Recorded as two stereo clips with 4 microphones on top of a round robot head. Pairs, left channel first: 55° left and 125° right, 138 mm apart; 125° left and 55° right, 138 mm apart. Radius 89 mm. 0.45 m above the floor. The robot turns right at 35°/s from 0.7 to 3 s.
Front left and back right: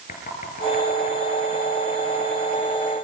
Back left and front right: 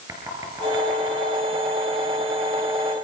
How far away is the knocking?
About 8.5 m.